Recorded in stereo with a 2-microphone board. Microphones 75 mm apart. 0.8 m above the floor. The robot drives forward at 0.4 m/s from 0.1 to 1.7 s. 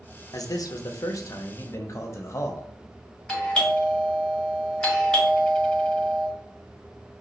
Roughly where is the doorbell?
Centre.